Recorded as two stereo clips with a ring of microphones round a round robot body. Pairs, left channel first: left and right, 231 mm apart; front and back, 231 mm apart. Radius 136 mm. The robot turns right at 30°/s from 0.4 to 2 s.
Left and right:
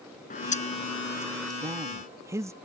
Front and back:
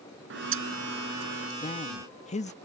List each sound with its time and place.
0.3 s a bird: 145° left; by 1.5 s straight behind
1.6 s a man speaking: 35° right; by 2.5 s 25° right